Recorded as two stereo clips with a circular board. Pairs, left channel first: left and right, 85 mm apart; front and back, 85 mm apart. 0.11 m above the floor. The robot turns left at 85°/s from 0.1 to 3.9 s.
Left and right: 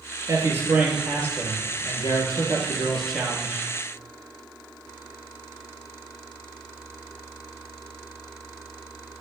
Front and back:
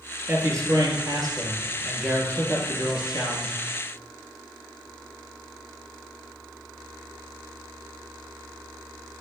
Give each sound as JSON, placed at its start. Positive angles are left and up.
{"t": 0.3, "sound": "a man speaking", "azimuth_deg": -120, "distance_m": 2.5}